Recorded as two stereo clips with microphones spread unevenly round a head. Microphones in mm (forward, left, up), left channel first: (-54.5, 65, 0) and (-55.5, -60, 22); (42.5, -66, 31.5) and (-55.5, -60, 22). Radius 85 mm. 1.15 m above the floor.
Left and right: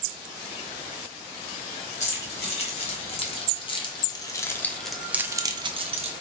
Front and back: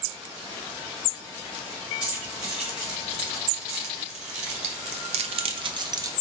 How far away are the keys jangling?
About 1.8 m.